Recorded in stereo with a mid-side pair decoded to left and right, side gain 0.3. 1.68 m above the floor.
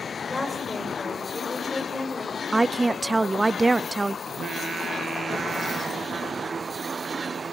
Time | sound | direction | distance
0.3 | a woman speaking | 25° left | 8.5 m
2.5 | a woman speaking | 35° right | 0.6 m
4.3 | singing | 65° right | 1.1 m